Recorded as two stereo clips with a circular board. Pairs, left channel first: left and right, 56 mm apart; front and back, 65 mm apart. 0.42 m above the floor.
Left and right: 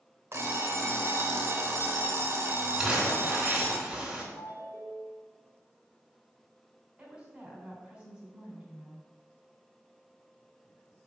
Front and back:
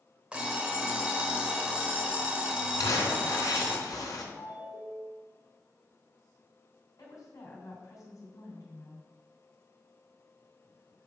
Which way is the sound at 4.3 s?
135° right.